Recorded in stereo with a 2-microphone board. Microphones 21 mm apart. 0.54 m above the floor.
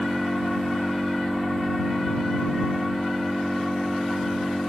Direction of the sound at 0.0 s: 70° left (ahead or behind).